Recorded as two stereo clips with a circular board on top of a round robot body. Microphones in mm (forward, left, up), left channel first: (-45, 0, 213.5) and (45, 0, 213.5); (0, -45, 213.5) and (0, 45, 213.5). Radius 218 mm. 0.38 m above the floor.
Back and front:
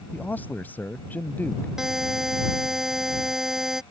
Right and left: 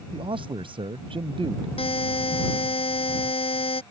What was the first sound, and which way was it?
A man speaking, 110° left.